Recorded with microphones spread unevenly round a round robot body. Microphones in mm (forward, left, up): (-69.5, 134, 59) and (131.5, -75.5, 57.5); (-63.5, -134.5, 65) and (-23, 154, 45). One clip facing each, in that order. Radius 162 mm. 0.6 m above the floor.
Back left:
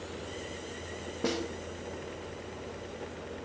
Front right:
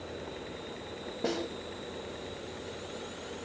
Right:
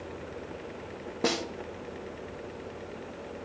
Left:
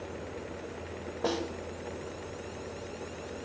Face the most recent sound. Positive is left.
turn(degrees=-145)